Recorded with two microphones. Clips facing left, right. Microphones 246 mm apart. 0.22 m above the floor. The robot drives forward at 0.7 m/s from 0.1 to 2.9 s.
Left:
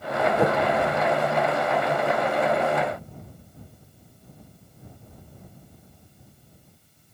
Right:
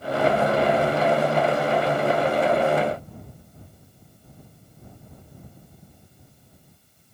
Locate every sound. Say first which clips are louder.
0.4 s a whoosh: left 1 dB; 65° left (ahead or behind)